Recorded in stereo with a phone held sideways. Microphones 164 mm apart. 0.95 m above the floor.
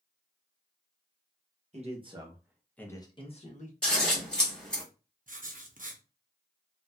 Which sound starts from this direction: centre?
Scissors, at 3.8 s.